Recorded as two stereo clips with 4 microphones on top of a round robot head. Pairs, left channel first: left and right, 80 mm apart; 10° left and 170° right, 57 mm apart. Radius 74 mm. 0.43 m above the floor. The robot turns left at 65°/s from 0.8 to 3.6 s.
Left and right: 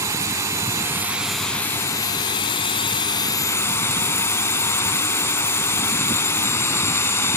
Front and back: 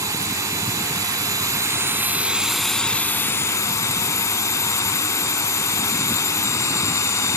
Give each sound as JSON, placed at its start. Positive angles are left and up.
{"t": 0.0, "sound": "a drone", "azimuth_deg": -145}